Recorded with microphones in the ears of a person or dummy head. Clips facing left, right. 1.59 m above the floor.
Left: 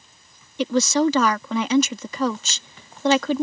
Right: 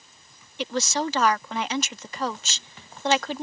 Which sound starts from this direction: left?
A woman speaking, at 0.6 s.